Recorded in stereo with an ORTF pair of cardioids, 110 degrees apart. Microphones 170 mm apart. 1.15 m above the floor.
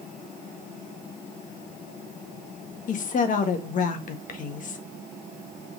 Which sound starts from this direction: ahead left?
A woman speaking, at 2.9 s.